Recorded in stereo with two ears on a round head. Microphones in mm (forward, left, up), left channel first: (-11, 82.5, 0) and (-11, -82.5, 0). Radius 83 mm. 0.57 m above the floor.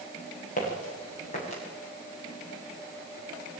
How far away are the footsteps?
About 8 m.